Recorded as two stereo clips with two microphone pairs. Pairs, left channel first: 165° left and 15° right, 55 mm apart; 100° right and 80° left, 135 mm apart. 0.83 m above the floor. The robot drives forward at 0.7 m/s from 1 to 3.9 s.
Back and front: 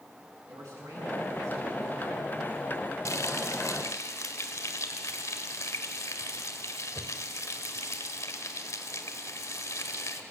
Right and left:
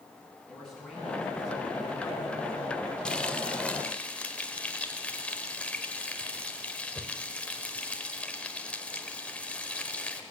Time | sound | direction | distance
0.5 | a man speaking | 15° right | 10 m
3.0 | frying | 175° left | 0.8 m